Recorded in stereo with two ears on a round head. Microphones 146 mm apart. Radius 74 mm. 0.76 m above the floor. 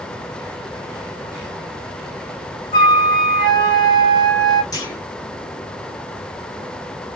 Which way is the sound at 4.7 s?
25° left (ahead or behind).